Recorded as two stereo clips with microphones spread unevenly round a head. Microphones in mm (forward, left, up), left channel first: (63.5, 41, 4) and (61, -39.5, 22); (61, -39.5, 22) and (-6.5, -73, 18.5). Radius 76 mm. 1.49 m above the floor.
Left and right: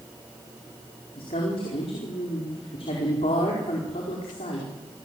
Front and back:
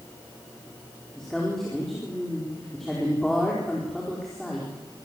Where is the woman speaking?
115° left, 5 m.